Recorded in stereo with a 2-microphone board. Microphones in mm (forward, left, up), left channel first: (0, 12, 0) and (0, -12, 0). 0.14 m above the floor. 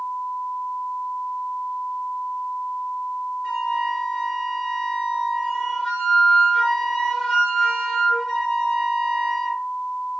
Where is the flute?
20° left (ahead or behind), 1.9 m.